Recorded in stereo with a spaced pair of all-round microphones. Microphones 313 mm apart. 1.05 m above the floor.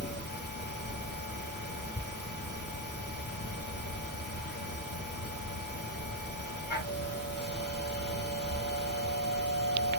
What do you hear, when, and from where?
0.0 s a machine running: 35° left (ahead or behind), 1.0 m